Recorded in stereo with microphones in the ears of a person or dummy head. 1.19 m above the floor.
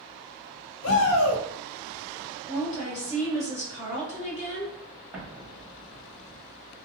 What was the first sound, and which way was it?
A shout, 75° left (ahead or behind).